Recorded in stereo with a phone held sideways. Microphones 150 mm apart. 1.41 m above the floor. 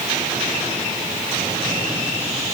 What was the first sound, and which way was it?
Only background noise.